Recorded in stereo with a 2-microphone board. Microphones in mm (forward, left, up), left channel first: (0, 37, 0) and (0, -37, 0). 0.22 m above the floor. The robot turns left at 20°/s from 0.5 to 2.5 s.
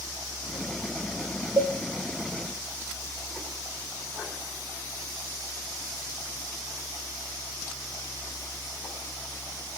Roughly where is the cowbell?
Right.